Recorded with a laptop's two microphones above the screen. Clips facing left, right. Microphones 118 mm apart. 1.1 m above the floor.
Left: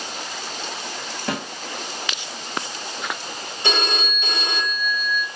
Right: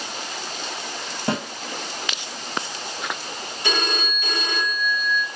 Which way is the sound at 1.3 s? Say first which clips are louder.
Right 3 dB; 25° right (ahead or behind).